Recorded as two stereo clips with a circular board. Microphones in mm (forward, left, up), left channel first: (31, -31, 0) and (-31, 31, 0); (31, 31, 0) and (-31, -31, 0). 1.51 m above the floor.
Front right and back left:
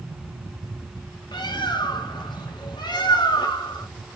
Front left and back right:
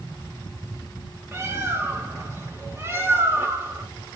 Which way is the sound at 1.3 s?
75° right.